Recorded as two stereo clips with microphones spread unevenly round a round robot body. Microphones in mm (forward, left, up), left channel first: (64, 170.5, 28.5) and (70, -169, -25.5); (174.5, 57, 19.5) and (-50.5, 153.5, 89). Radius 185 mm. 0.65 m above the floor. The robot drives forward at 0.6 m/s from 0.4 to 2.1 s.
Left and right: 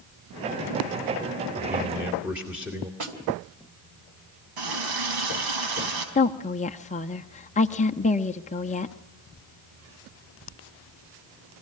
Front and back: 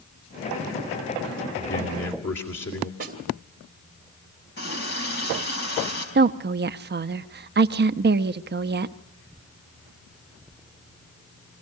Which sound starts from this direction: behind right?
A snare drum, at 3.0 s.